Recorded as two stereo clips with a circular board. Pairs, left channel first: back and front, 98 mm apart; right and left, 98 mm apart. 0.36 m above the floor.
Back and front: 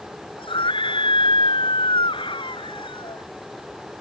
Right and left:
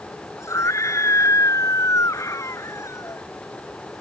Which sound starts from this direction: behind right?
A scream, at 0.4 s.